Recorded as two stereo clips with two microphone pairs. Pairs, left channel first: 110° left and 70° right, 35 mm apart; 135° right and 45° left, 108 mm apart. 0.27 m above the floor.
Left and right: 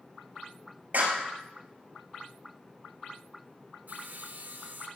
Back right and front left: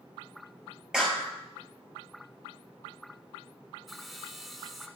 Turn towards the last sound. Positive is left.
turn(degrees=-45)